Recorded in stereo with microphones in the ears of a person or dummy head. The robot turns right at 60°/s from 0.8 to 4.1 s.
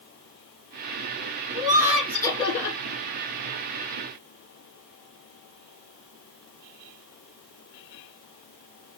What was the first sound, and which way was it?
Laughter, 30° right.